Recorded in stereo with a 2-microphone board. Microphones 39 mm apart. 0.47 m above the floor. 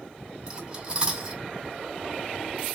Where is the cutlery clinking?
25° right (ahead or behind), 2 m.